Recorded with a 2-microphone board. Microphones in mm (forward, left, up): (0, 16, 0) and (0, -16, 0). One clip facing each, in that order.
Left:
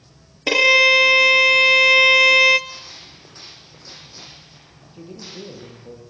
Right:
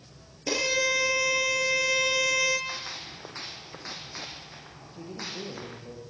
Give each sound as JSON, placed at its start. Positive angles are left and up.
{"t": 0.5, "sound": "a violin", "side_deg": 65, "distance_m": 0.9}
{"t": 2.7, "sound": "a gunshot", "side_deg": -60, "distance_m": 4.5}
{"t": 4.8, "sound": "a man speaking", "side_deg": 10, "distance_m": 6.0}